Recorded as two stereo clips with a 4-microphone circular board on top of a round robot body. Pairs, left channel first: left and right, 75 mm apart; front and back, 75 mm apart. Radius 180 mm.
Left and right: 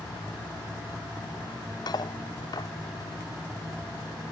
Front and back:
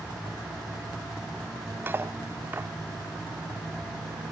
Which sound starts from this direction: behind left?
Cutlery clinking, at 1.9 s.